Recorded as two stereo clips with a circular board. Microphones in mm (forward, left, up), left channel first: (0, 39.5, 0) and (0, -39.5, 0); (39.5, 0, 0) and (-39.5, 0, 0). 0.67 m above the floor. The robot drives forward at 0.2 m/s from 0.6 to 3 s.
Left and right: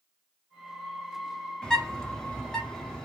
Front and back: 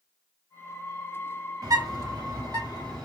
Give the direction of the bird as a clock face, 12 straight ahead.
6 o'clock.